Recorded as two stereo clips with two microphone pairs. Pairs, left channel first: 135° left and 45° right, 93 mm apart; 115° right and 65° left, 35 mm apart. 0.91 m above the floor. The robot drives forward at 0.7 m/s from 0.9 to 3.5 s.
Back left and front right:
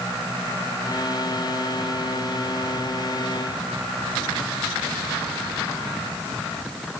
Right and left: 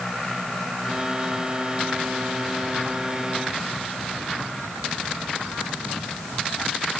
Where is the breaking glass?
No breaking glass in this recording.